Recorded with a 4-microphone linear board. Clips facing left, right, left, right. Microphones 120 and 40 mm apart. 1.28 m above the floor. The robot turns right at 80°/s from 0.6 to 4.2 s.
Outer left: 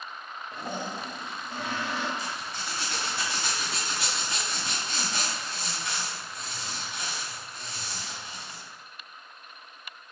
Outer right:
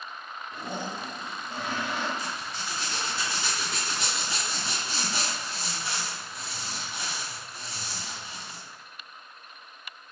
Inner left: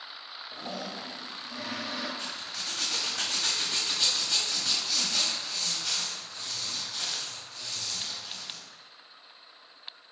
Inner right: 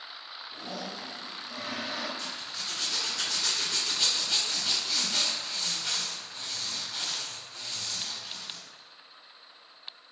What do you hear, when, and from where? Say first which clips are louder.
0.5 s a toilet flushing: even, inner left 1 dB; 135° left, 1.3 m; by 2.1 s 105° right, 1.3 m
2.2 s a zipper: even, even; 25° left, 1.3 m; by 8.6 s 175° right, 1.3 m